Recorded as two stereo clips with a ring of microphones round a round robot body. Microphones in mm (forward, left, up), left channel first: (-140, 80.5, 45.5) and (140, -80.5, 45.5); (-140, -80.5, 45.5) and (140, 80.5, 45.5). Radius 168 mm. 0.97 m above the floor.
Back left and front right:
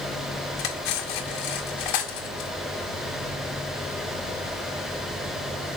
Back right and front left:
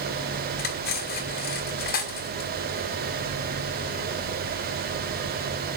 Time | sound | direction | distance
0.6 | cutlery clinking | 145° left | 2.5 m